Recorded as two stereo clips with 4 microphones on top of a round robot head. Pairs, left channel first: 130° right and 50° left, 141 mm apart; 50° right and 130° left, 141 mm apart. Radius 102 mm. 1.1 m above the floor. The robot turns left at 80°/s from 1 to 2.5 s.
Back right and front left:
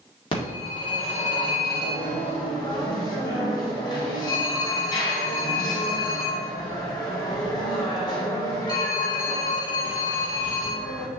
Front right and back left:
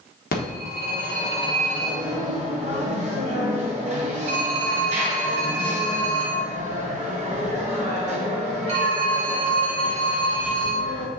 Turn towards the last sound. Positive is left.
turn(degrees=170)